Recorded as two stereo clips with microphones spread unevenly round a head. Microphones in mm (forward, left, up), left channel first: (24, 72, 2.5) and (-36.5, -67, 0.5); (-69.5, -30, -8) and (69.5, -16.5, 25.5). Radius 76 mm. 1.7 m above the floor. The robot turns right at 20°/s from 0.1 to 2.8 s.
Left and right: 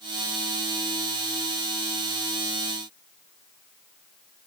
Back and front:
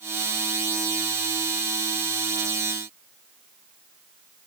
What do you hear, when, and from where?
Only background noise.